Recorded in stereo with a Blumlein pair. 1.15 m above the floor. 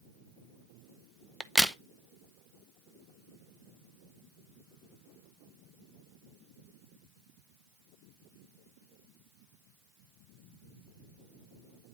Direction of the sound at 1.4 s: 5° left.